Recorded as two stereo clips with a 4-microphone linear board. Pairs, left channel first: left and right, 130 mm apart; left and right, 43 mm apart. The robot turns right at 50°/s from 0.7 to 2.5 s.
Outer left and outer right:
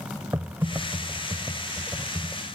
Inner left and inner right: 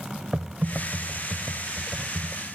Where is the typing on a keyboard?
20° right (ahead or behind), 1.1 m; by 2.5 s 5° left (ahead or behind), 1.1 m.